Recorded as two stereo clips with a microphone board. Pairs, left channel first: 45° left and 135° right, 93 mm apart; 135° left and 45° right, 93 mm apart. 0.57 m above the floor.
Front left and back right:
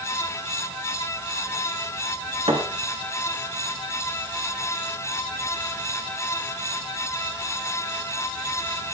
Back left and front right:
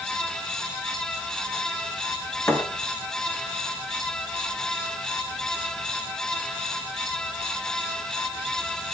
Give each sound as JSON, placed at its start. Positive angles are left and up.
{"t": 2.5, "sound": "a thud", "azimuth_deg": -160, "distance_m": 3.5}